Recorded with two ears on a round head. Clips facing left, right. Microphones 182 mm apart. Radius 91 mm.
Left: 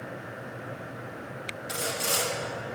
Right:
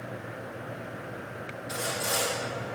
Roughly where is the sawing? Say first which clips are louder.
Even; left.